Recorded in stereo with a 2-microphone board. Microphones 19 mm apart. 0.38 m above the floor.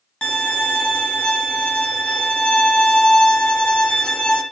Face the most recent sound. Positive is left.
turn(degrees=50)  # may be behind; listen again after turning